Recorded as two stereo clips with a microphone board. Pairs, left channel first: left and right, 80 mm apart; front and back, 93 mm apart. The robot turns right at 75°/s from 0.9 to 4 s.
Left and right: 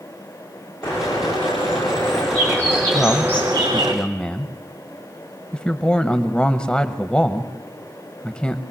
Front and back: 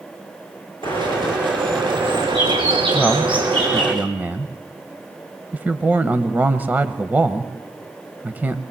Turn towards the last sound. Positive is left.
turn(degrees=145)